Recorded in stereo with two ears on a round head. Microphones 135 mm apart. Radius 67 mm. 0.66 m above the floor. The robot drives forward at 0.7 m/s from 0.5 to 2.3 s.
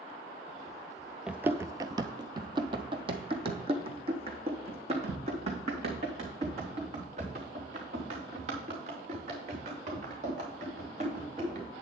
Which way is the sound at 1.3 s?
5° right (ahead or behind).